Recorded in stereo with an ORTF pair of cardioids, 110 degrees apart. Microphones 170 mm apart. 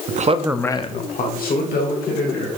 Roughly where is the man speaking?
Ahead right.